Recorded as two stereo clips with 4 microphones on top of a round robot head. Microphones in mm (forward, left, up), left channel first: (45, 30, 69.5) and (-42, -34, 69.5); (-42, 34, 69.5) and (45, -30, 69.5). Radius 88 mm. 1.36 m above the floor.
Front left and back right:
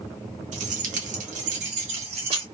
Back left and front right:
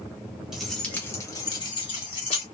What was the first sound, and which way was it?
Keys jangling, 120° right.